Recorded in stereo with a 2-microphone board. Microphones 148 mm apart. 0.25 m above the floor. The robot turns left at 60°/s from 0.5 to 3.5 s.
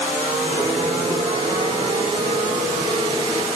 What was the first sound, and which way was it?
Only background noise.